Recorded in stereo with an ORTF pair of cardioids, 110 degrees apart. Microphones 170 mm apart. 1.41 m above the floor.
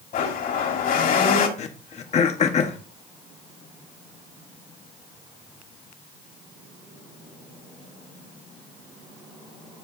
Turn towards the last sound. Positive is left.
turn(degrees=40)